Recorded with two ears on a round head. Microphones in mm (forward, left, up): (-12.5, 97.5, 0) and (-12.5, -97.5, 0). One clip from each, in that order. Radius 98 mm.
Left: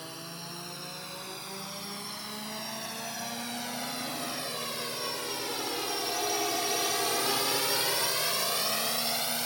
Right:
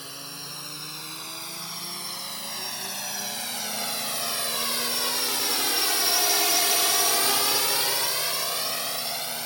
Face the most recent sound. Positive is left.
turn(degrees=0)  # may be behind; listen again after turning